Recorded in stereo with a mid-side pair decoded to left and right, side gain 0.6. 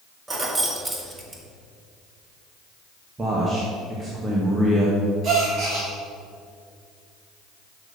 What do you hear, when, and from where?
0.3 s keys jangling: 20° right, 1.6 m
3.2 s a man speaking: 20° right, 1.9 m
5.2 s a gasp: 45° right, 3 m